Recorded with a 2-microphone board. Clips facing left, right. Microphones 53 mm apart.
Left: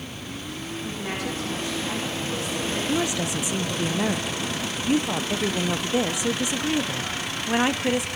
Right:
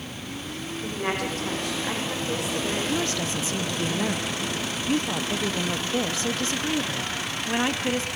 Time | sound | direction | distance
0.8 | a woman speaking | 65° right (ahead or behind) | 7 m
2.9 | a woman speaking | 15° left (ahead or behind) | 1.0 m